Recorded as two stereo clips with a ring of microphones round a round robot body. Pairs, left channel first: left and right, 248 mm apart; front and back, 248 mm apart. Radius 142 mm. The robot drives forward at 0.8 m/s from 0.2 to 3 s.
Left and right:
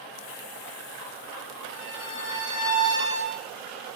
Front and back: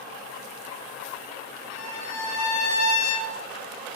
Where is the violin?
15° left, 9.5 m; by 3.3 s 20° left, 8.5 m.